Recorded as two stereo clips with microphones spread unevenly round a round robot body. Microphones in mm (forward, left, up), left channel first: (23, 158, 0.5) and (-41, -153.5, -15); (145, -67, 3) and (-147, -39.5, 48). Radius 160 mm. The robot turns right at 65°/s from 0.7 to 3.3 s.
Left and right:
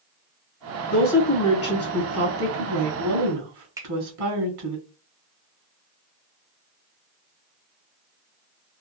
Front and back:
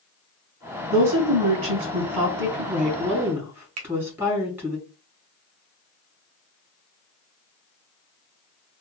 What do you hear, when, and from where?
0.9 s a woman speaking: 105° left, 2 m; by 4.8 s 100° right, 2 m
3.8 s a finger snap: 175° right, 0.9 m